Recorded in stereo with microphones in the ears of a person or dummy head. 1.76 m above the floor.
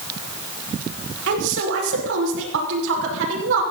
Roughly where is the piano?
I don't hear a piano.